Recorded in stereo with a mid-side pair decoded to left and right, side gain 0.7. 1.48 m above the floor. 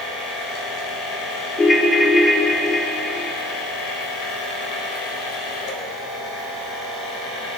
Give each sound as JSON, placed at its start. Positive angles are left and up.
{"t": 0.0, "sound": "a machine running", "azimuth_deg": 65, "distance_m": 4.0}
{"t": 1.6, "sound": "a ringtone", "azimuth_deg": 20, "distance_m": 1.0}